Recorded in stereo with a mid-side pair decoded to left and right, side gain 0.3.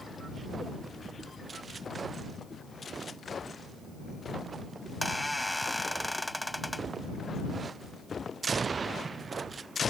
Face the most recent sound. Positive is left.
turn(degrees=10)